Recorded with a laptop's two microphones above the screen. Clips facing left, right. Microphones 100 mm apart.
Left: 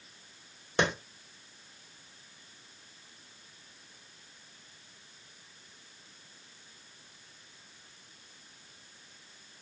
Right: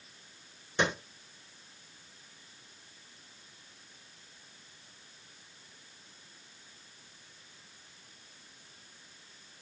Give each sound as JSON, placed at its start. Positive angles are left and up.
{"t": 0.8, "sound": "a clap", "side_deg": 65, "distance_m": 1.2}